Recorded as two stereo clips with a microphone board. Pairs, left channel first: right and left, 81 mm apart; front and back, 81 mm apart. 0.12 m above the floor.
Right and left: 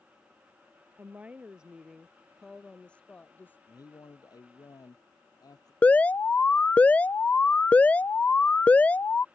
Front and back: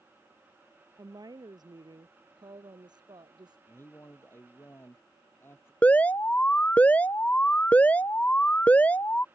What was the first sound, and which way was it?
A woman speaking, 155° left.